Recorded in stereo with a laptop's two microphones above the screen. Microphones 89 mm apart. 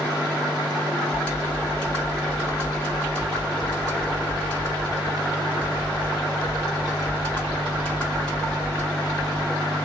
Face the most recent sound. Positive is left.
turn(degrees=10)  # may be behind; listen again after turning